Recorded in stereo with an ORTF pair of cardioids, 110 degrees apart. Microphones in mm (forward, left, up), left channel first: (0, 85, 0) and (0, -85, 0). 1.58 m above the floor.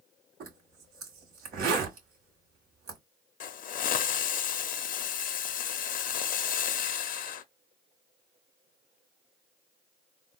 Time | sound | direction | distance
0.4 | a zipper | 60° right | 1.6 m
3.4 | a hiss | 50° left | 0.5 m